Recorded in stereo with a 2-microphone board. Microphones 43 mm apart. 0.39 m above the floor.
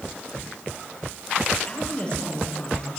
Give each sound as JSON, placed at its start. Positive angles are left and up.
{"t": 1.7, "sound": "a woman speaking", "side_deg": 20, "distance_m": 8.5}